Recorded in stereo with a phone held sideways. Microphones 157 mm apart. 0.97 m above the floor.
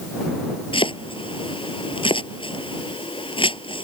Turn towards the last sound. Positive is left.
turn(degrees=35)  # may be behind; listen again after turning